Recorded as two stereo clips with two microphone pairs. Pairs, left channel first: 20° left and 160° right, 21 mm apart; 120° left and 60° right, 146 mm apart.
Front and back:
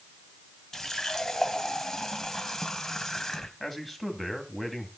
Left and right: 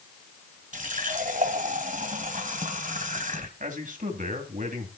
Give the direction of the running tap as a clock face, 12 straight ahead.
1 o'clock.